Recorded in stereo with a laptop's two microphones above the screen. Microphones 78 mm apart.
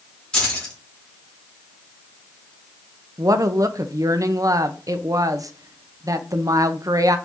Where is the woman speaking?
50° right (ahead or behind), 0.6 m.